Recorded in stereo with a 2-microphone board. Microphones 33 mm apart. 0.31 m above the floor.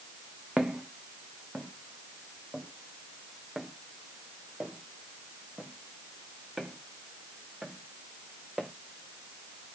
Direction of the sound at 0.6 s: 30° right (ahead or behind).